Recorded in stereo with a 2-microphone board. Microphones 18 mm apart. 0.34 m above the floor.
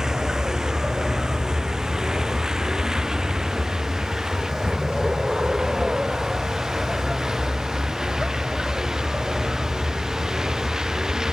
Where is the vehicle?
40° right (ahead or behind).